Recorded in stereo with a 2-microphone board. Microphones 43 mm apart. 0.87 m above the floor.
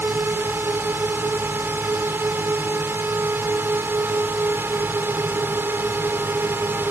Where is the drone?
55° right (ahead or behind).